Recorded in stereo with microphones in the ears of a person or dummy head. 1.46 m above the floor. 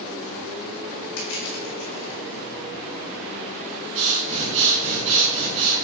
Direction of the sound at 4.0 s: 40° right (ahead or behind).